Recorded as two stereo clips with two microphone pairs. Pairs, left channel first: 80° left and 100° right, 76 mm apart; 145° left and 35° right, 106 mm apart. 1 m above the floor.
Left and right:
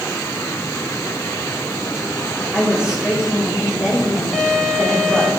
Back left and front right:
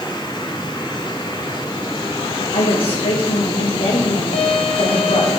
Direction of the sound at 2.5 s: Straight behind.